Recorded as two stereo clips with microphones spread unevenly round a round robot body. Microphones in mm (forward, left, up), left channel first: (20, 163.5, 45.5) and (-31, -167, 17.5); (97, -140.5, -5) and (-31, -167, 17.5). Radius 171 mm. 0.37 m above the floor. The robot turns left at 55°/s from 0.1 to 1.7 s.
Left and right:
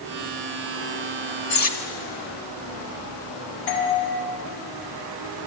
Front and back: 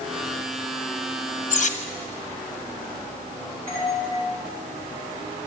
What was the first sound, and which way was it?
Cutlery clinking, 25° left.